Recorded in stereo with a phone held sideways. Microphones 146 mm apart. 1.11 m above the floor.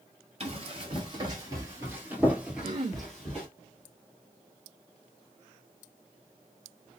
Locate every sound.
0.4 s running footsteps: 40° right (ahead or behind), 1.4 m; by 3.5 s 5° left (ahead or behind), 1.8 m
2.6 s throat clearing: 40° right (ahead or behind), 0.9 m